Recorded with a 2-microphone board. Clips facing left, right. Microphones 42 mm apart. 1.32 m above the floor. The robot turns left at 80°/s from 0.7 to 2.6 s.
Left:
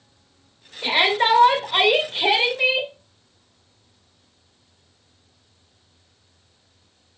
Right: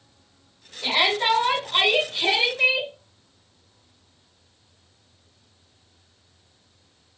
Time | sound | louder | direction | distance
0.8 | a shout | left 3 dB | 150° left | 1.8 m